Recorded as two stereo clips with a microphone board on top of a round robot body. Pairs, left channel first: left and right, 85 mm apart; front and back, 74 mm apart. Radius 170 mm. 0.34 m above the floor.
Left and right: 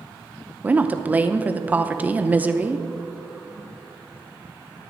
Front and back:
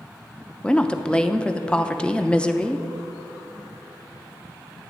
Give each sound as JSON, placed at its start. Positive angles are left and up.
{"t": 0.6, "sound": "a woman speaking", "azimuth_deg": -55, "distance_m": 0.8}